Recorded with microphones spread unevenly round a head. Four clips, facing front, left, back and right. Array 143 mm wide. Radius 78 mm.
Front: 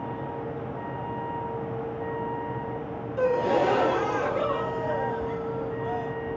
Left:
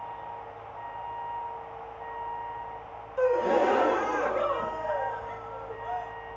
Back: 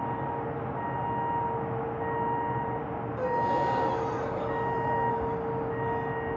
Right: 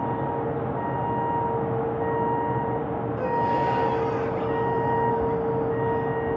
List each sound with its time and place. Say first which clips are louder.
0.0 s a vehicle: right 12 dB, back 1 dB; 80° right
3.2 s a gasp: left 2 dB, front 5 dB; 30° left